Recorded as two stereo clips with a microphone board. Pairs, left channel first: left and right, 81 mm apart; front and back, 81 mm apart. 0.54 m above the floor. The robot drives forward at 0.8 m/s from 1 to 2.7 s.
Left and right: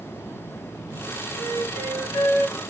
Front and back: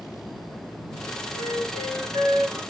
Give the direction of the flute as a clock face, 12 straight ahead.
7 o'clock.